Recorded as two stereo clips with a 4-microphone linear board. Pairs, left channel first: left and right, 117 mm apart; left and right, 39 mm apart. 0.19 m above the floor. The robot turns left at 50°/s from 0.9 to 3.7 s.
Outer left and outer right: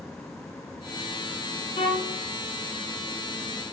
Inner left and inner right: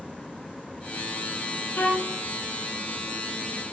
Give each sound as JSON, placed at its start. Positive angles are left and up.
{"t": 1.8, "sound": "a violin", "side_deg": 45, "distance_m": 8.5}